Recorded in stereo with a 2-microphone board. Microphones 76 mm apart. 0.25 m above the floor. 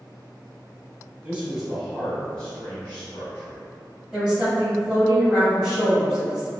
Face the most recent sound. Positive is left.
turn(degrees=-10)  # may be behind; listen again after turning